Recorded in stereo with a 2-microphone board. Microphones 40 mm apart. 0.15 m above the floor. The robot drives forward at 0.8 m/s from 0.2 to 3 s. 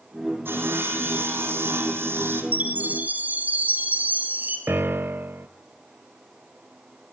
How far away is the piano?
About 0.6 m.